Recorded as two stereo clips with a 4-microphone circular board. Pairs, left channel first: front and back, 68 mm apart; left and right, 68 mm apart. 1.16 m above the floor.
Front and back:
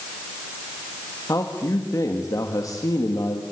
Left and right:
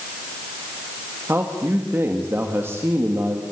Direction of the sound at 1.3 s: 35° right.